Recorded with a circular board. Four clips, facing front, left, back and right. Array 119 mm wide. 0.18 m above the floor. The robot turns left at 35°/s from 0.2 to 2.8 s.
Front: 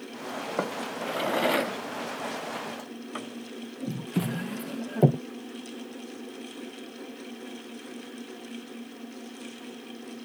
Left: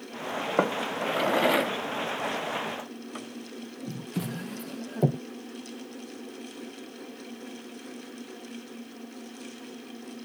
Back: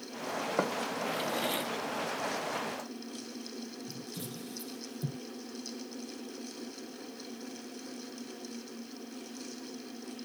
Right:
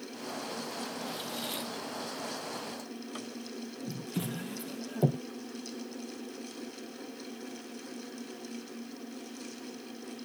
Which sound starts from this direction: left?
A drawer, at 0.6 s.